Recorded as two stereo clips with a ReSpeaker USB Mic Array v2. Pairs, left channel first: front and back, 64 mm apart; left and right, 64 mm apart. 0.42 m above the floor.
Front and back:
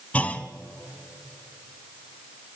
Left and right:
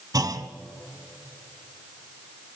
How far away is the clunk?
About 0.8 m.